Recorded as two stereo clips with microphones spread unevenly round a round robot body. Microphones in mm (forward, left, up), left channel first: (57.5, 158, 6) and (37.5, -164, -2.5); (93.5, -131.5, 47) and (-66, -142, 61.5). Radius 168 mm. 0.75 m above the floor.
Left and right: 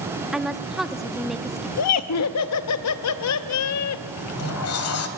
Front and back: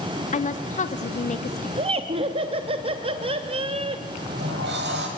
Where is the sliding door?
135° left, 1.6 m.